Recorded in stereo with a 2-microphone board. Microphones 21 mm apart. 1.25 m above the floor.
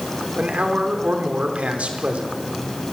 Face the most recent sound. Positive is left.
turn(degrees=-80)